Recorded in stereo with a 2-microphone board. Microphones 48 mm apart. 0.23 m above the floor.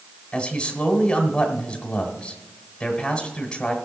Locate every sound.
0.3 s a man speaking: 20° left (ahead or behind), 1.5 m